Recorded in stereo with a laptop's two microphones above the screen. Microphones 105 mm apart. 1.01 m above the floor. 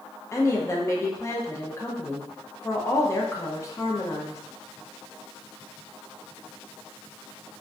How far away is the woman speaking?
About 0.5 m.